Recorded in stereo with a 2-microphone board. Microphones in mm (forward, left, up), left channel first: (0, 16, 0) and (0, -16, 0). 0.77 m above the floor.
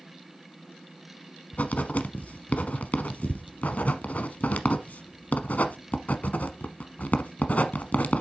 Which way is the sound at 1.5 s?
55° left (ahead or behind).